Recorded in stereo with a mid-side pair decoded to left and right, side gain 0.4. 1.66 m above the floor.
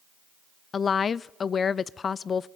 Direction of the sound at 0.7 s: 45° left.